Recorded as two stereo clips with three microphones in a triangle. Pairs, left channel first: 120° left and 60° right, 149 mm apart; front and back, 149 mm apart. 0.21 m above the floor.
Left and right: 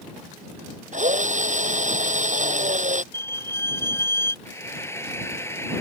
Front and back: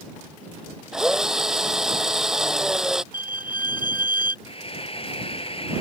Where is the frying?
50° left.